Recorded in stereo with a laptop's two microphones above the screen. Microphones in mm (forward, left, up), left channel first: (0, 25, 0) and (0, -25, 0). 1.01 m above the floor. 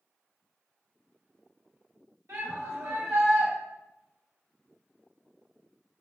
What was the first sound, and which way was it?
A shout, 70° right (ahead or behind).